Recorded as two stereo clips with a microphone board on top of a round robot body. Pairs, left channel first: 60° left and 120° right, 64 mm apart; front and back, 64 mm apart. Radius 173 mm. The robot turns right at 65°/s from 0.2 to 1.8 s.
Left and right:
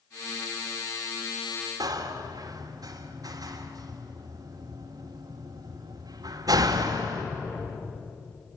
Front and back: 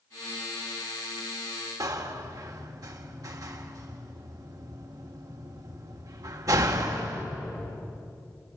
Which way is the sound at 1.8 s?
150° right.